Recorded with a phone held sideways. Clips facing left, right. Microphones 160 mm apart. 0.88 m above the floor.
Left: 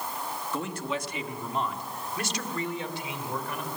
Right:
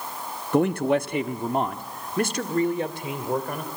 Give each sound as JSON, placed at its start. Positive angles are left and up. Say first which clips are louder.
{"t": 0.5, "sound": "a man speaking", "louder": "right 13 dB", "side_deg": -60, "distance_m": 0.9}